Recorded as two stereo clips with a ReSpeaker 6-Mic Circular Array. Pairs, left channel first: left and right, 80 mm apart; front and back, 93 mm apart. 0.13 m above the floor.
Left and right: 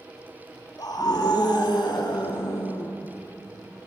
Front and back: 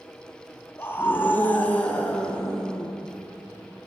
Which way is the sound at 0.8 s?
65° left.